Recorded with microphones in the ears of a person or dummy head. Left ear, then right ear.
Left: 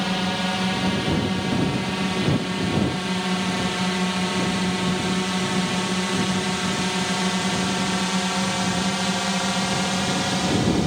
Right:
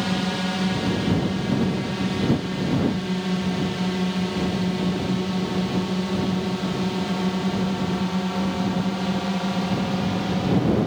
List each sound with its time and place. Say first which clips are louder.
0.0 s a drone: left 2 dB; 25° left (ahead or behind); by 10.9 s 65° left (ahead or behind)